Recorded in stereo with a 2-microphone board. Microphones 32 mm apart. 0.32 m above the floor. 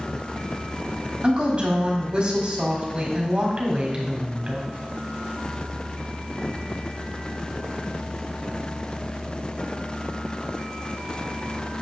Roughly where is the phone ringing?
No phone ringing in this recording.